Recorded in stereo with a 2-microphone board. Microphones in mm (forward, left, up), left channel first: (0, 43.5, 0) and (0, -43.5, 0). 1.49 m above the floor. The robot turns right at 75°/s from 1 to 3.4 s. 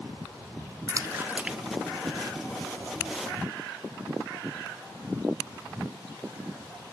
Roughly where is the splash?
Right.